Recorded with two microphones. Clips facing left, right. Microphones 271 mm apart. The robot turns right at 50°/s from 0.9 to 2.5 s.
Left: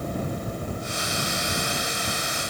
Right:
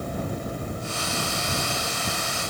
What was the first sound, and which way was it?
Only background noise.